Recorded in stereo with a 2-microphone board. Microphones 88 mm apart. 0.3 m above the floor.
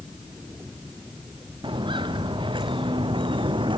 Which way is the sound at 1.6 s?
70° right (ahead or behind).